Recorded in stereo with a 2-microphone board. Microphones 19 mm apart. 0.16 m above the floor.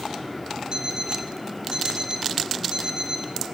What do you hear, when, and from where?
0.7 s an alarm clock: 30° right (ahead or behind), 3.5 m